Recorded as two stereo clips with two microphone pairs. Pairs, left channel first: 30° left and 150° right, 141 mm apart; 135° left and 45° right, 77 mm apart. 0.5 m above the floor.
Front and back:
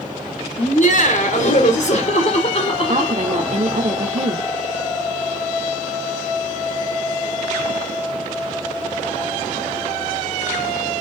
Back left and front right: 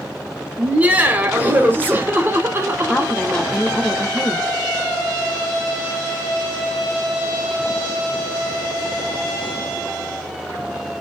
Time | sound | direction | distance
0.6 | laughter | 30° left | 3 m
2.9 | a woman speaking | 140° right | 1.2 m